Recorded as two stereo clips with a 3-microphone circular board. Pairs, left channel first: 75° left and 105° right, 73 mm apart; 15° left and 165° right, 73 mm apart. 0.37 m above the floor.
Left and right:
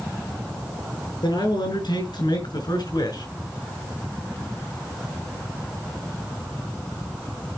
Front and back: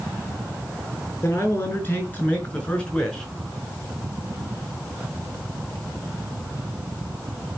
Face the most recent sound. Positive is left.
turn(degrees=100)